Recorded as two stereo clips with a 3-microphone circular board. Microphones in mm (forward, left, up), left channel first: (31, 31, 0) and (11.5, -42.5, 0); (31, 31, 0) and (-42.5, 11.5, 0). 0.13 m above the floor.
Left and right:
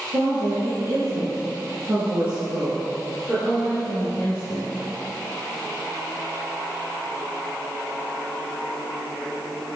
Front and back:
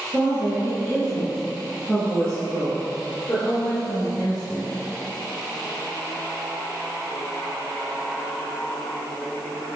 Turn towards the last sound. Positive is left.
turn(degrees=-15)